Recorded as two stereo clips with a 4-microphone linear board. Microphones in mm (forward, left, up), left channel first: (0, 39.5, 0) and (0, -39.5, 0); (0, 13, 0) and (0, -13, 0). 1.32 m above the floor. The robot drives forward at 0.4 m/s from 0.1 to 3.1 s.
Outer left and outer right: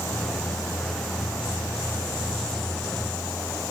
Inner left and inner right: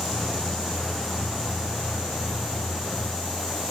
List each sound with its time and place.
Only background noise.